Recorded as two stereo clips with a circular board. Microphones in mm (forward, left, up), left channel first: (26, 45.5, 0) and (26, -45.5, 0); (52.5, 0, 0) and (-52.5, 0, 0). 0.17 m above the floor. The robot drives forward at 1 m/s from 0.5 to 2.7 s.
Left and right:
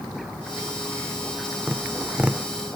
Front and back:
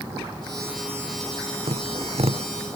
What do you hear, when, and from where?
1.7 s tapping: 170° right